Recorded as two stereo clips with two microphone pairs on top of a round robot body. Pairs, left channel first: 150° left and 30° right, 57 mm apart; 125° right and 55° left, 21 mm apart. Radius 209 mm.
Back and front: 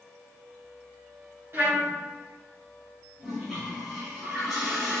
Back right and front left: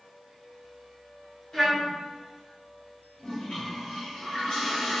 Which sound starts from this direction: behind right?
A toilet flushing, at 3.2 s.